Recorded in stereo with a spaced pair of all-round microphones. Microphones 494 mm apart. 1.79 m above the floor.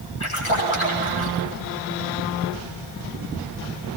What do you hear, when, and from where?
0.2 s a splash: 80° left, 9 m